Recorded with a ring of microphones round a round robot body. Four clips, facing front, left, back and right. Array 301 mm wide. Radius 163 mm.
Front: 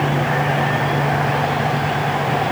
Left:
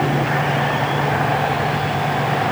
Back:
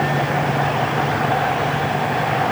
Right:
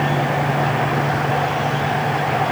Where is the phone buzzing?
I don't hear a phone buzzing.